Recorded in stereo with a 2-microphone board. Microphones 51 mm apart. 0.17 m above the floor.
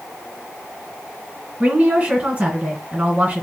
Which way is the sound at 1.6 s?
25° right (ahead or behind).